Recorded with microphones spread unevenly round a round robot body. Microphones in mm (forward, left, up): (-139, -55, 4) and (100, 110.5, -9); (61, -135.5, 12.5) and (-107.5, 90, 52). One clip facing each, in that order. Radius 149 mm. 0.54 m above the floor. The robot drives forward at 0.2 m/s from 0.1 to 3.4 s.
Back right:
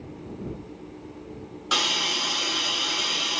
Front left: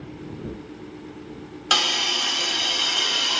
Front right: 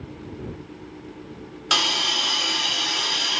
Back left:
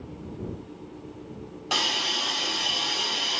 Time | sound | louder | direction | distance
1.7 | a hiss | front left 1 dB, front right 2 dB | 10° left | 0.9 m